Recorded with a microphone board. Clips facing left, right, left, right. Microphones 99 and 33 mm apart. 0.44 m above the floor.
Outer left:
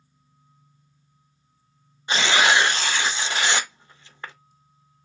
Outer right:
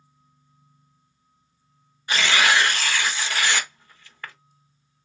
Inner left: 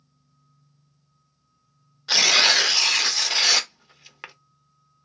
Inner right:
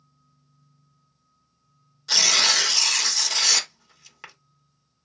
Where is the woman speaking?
I don't hear a woman speaking.